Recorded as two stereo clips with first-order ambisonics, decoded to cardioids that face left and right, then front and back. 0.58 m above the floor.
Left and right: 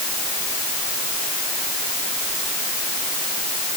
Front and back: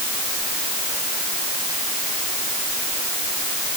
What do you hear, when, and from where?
Only background noise.